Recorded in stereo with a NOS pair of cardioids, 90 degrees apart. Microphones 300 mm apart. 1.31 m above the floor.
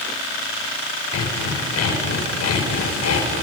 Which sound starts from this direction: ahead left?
Sawing, at 1.1 s.